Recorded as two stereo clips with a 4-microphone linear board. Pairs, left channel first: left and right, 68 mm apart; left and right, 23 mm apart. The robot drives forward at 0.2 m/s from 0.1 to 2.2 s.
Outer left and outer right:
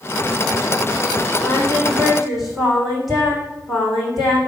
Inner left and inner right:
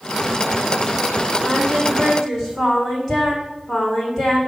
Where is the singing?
Centre (ahead or behind), 6 m.